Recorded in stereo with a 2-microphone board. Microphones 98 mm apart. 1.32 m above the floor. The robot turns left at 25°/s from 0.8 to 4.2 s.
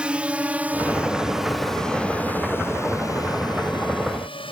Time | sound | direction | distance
0.0 | a drone | 10° right (ahead or behind) | ?